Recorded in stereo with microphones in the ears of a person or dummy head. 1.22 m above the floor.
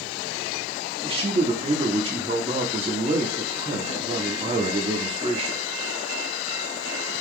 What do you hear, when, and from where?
1.0 s a man speaking: 30° right (ahead or behind), 0.9 m